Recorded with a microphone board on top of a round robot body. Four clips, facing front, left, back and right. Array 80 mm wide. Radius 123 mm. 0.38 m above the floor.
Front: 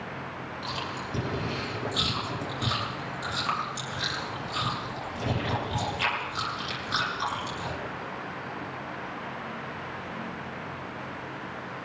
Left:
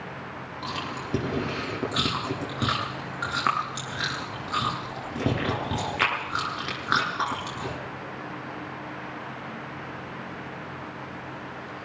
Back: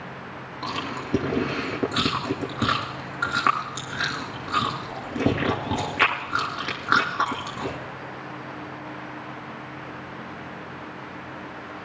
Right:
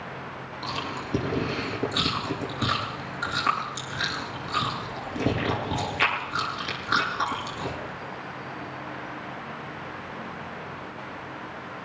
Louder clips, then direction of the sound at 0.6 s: Right 1 dB, back 6 dB; 160° left.